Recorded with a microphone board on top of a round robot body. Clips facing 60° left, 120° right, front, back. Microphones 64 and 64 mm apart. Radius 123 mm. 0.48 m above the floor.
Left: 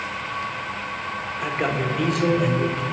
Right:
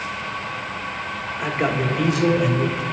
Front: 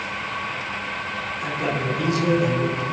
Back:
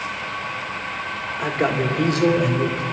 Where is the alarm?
No alarm in this recording.